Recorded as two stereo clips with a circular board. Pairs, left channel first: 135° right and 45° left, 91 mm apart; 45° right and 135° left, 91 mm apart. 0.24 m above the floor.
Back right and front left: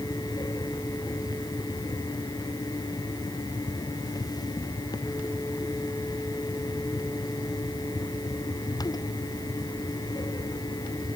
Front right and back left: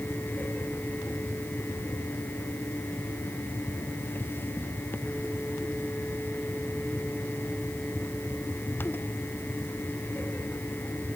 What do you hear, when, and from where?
Only background noise.